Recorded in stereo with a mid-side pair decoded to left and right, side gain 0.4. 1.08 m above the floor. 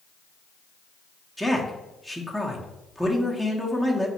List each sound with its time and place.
1.4 s a man speaking: 5° right, 0.8 m